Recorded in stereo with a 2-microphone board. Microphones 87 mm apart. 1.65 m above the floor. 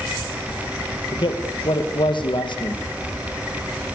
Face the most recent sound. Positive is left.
turn(degrees=65)  # may be behind; listen again after turning